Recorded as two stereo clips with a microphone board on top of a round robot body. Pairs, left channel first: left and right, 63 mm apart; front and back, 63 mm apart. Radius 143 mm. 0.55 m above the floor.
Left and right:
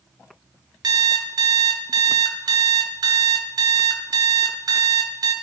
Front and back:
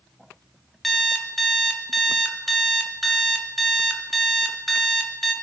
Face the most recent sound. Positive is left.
turn(degrees=-90)